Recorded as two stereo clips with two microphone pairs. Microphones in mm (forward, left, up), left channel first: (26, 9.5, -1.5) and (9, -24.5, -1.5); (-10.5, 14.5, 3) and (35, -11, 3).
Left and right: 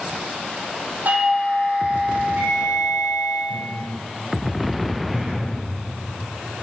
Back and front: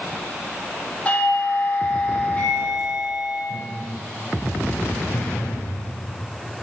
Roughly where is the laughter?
Behind right.